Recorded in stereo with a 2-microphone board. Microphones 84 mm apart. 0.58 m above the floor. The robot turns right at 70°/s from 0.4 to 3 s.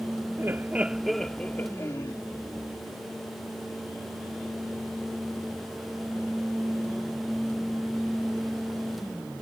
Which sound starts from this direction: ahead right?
Laughter, at 0.4 s.